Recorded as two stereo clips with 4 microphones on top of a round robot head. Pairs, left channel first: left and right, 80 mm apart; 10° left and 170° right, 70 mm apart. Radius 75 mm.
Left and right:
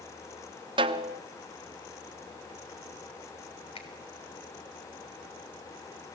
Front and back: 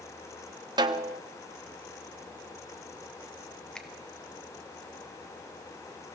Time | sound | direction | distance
0.8 | a snare drum | 130° right | 0.8 m
3.8 | a finger snap | 90° left | 3 m